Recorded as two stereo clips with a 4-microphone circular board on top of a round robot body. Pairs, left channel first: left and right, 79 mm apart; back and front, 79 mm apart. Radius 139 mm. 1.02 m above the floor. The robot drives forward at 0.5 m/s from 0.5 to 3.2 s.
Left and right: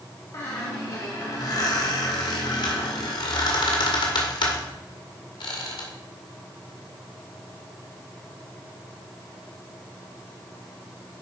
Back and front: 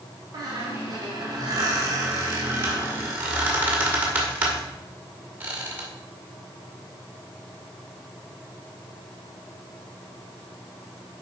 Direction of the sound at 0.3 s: 40° left.